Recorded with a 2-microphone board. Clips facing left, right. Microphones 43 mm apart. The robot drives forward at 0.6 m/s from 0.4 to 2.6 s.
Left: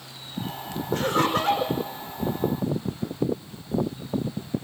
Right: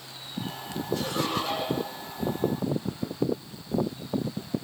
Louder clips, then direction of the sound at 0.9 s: Left 6 dB; 55° left (ahead or behind).